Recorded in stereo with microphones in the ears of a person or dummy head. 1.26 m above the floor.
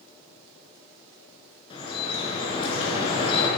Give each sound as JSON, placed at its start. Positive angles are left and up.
{"t": 1.7, "sound": "dripping", "side_deg": 35, "distance_m": 6.5}